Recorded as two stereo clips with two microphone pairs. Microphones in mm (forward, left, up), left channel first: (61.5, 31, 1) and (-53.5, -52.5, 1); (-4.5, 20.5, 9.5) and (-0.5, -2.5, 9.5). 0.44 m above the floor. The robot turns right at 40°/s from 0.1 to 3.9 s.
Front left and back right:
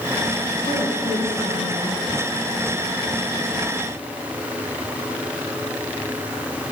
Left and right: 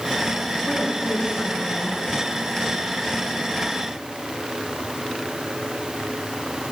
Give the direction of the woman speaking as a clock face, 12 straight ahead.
10 o'clock.